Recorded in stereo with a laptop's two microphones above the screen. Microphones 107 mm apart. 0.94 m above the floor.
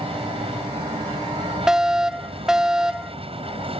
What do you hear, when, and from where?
0.0 s an aircraft: 65° right (ahead or behind)
1.7 s a fire alarm: 5° right (ahead or behind)